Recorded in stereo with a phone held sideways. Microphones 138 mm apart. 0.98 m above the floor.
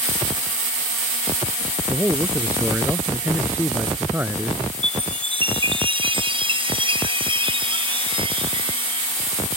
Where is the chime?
40° right (ahead or behind).